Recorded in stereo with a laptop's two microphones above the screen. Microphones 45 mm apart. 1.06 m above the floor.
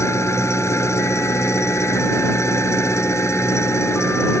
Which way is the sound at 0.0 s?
80° left.